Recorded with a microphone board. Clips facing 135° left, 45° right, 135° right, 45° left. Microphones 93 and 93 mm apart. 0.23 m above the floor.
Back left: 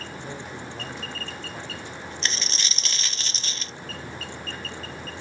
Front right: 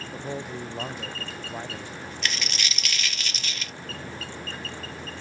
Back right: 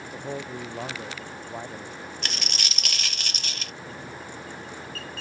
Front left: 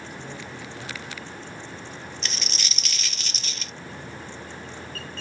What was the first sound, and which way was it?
A man speaking, 100° right.